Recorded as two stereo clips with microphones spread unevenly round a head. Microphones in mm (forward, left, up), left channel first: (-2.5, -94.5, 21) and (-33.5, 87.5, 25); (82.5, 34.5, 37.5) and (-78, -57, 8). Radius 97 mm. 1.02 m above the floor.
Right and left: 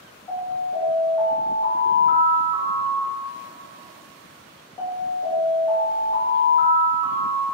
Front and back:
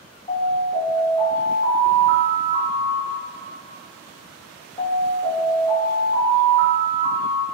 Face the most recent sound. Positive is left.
turn(degrees=-20)